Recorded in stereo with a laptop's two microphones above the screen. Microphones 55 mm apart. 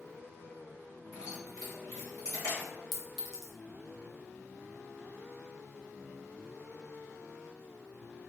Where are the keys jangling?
80° left, 1.5 m.